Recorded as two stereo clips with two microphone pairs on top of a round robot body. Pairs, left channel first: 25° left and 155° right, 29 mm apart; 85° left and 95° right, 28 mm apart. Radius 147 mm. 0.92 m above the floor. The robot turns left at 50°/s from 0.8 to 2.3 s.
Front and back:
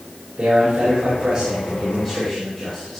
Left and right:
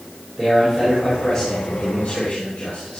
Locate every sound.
0.4 s a man speaking: 165° right, 4 m; by 3.0 s 120° left, 4 m